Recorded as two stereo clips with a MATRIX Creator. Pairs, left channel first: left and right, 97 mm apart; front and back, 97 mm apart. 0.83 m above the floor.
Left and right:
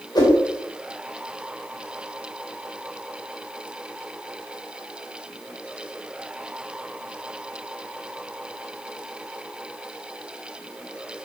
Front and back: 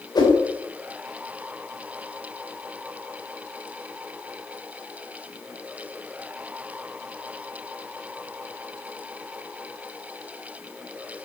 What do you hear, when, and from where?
0.1 s a whoosh: 45° left, 4 m